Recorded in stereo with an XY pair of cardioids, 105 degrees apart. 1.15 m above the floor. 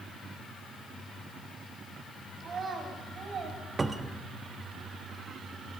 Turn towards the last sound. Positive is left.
turn(degrees=-25)